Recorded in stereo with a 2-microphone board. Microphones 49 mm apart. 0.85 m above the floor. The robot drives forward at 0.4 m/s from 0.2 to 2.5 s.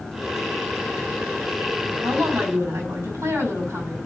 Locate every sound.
2.0 s a woman speaking: 85° right, 6.5 m